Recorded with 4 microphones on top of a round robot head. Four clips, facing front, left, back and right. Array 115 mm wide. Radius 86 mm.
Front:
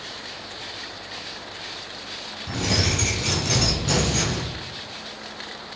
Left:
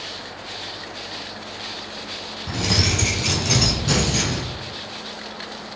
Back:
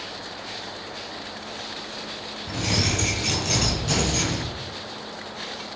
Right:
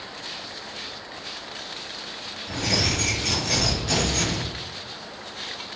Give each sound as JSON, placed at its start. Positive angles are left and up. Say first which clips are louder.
{"t": 2.5, "sound": "keys jangling", "louder": "left 2 dB, front 1 dB", "azimuth_deg": 75, "distance_m": 4.0}